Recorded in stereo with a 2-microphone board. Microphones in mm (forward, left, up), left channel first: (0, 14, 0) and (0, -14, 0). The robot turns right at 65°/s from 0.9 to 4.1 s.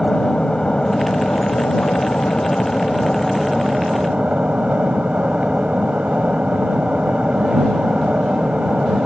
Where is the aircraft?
25° left; by 9.1 s 130° right.